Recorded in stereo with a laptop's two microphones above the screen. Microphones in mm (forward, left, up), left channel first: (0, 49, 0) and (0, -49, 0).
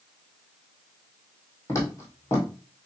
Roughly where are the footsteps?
Left.